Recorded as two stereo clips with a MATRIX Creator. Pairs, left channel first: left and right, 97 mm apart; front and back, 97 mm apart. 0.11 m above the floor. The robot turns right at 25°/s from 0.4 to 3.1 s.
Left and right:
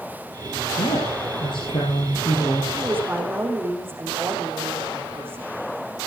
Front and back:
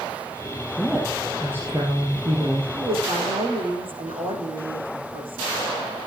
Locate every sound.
0.8 s a woman speaking: 90° left, 3.5 m; by 2.6 s 140° left, 3.5 m
2.7 s a woman speaking: 165° right, 7 m; by 5.4 s 155° right, 7 m